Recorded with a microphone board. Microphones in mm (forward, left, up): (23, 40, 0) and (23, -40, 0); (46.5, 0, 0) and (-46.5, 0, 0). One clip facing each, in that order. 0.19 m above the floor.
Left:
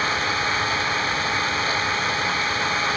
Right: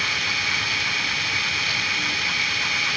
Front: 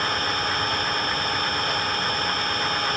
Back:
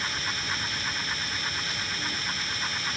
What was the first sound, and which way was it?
An engine running, 35° left.